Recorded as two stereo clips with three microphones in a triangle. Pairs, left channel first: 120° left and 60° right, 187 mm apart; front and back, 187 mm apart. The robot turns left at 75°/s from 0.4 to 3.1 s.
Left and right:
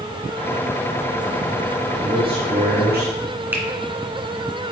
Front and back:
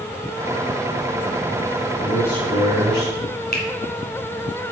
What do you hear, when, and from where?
2.0 s a man speaking: 10° left, 2 m; by 3.2 s 70° right, 2 m
3.5 s a finger snap: 15° left, 1.7 m